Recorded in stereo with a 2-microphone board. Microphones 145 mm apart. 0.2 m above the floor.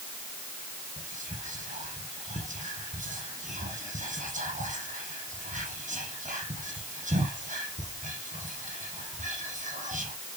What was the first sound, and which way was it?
Whispering, 60° right (ahead or behind).